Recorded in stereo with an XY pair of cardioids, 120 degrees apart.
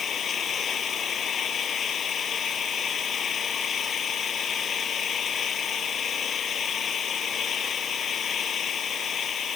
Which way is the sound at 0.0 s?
45° left.